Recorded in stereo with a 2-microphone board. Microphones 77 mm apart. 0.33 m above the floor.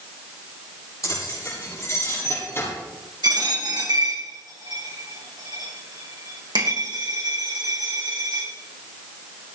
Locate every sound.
1.0 s keys jangling: 45° left (ahead or behind), 9 m; by 2.7 s 35° left (ahead or behind), 7.5 m
3.2 s a dropped coin: 80° right, 6.5 m